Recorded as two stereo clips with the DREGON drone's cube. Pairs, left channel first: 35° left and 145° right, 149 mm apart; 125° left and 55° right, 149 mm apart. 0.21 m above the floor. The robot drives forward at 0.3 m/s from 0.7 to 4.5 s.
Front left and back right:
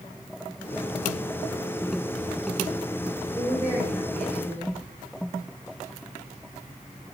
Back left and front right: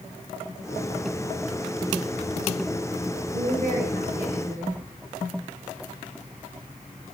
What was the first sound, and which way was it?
A woman speaking, 40° right.